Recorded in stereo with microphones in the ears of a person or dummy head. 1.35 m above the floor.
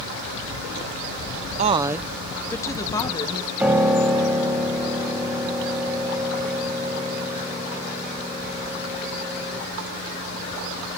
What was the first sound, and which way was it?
A woman speaking, 35° right (ahead or behind).